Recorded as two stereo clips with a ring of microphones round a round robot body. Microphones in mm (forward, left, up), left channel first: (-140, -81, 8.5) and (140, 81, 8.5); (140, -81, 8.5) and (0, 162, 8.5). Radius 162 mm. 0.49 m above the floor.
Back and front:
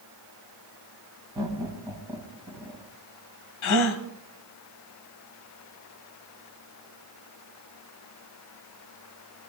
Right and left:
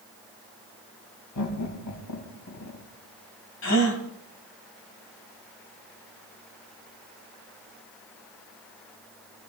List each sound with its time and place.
1.4 s laughter: 50° right, 3 m
3.6 s a gasp: 110° right, 1.9 m